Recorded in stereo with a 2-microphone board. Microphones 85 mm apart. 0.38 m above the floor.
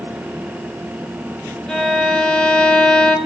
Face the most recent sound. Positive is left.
turn(degrees=10)  # may be behind; listen again after turning